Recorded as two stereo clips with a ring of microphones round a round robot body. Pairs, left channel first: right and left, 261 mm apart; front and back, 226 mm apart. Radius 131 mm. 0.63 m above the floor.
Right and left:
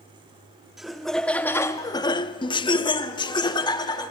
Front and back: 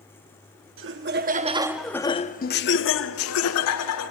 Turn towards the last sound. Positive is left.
turn(degrees=-15)